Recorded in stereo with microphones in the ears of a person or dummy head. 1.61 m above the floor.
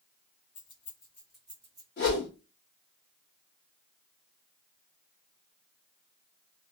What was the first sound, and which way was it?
Keys jangling, 35° left (ahead or behind).